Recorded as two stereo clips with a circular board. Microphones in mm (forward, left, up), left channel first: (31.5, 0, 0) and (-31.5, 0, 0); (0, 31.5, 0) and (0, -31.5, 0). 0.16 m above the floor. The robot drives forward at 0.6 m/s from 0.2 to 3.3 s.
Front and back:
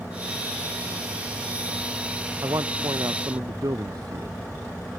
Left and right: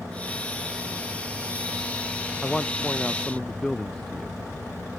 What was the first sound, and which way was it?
A man speaking, 170° left.